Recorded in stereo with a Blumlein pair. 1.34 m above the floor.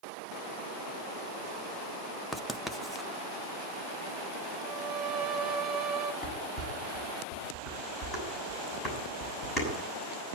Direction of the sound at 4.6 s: 15° right.